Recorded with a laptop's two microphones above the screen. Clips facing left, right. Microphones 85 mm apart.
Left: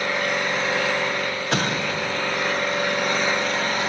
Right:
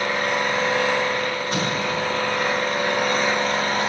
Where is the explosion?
80° left, 1.3 m.